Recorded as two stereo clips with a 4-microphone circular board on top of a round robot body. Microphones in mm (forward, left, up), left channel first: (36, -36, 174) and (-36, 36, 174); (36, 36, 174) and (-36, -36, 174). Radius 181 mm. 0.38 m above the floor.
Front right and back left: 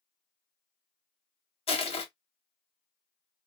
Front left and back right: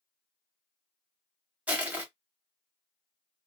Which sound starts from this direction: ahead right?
Crushing, at 1.7 s.